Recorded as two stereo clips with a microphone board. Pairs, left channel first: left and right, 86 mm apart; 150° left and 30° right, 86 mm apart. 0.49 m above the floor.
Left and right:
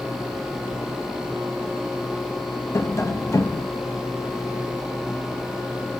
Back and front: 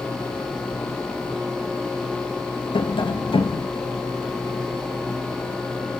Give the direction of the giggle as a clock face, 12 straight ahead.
I don't hear a giggle.